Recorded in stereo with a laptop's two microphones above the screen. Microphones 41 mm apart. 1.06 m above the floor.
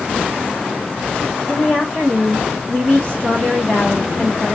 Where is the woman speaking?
10° left (ahead or behind), 1.2 m.